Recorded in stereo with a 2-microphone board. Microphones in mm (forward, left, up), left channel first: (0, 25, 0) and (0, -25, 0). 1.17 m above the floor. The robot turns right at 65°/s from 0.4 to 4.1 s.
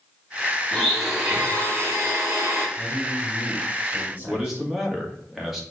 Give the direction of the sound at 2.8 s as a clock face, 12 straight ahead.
8 o'clock.